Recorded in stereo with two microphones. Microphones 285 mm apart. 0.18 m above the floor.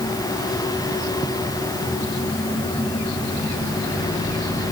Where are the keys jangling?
No keys jangling in this recording.